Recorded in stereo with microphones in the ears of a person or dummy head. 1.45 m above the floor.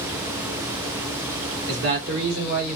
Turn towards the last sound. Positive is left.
turn(degrees=-70)  # may be behind; listen again after turning